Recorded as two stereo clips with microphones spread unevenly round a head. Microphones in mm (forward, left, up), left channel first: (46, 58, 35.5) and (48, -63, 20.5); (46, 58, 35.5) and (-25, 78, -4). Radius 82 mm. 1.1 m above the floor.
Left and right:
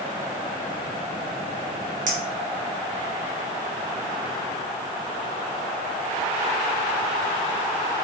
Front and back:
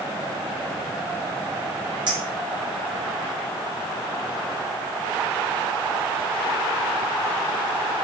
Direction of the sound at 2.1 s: 135° right.